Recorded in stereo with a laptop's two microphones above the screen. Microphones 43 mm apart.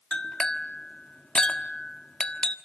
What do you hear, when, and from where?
0.1 s a clink: 20° left (ahead or behind), 1.4 m